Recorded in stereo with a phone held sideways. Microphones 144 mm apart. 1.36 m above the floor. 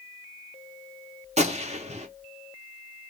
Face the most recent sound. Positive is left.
turn(degrees=-50)  # may be behind; listen again after turning